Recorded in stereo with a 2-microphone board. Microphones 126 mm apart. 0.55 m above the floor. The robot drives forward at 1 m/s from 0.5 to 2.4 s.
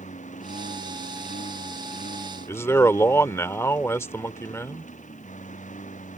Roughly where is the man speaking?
Left.